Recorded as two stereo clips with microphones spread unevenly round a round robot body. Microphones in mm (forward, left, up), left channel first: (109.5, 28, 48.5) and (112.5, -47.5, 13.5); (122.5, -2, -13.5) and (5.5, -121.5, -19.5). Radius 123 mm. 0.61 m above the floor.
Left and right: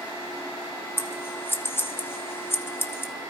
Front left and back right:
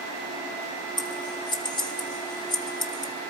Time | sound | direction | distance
1.0 | scissors | 15° left | 0.9 m